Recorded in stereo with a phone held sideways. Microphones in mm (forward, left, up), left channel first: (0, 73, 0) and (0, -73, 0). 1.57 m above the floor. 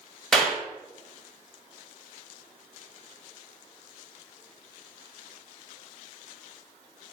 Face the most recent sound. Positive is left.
turn(degrees=0)  # may be behind; listen again after turning